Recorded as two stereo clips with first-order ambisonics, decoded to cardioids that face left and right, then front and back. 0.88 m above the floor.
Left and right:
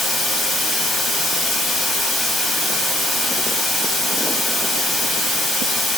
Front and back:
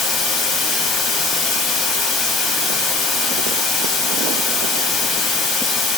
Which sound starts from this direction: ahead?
Running water, at 0.0 s.